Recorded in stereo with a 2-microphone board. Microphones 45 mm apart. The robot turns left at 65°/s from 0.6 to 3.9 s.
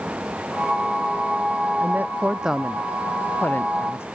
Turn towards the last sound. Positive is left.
turn(degrees=105)